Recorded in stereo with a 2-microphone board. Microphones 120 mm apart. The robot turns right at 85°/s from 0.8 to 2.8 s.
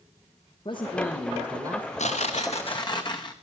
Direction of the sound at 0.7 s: 135° left.